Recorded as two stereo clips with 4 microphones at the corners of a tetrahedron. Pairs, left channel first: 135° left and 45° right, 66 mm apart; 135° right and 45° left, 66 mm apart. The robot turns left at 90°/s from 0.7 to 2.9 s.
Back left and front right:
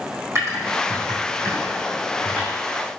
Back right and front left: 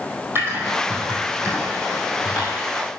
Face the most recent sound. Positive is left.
turn(degrees=160)